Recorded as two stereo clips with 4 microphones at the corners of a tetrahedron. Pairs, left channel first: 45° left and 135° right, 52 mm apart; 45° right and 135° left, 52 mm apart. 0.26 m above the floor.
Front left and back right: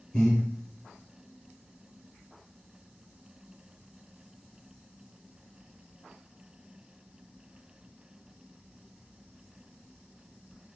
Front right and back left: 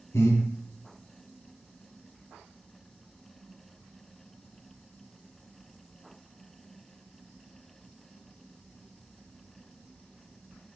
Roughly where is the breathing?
Ahead right.